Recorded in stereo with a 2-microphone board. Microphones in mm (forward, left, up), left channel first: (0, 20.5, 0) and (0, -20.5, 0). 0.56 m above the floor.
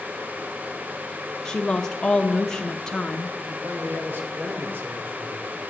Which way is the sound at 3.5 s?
60° right (ahead or behind).